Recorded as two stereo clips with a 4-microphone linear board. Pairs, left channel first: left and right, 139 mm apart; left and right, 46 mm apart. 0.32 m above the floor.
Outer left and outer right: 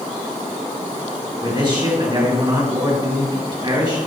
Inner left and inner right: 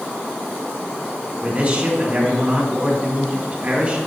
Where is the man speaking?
30° right (ahead or behind), 5 m.